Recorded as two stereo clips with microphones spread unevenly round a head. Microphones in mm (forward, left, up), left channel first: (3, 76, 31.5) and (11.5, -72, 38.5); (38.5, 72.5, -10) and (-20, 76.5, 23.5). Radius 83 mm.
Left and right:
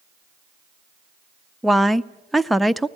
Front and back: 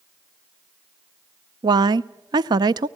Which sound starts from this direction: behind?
A woman speaking, at 1.6 s.